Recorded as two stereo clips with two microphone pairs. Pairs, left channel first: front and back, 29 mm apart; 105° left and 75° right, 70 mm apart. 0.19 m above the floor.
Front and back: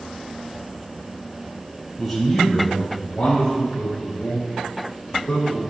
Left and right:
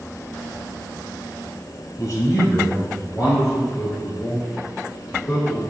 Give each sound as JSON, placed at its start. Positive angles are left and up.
{"t": 2.0, "sound": "a man speaking", "azimuth_deg": 100, "distance_m": 2.0}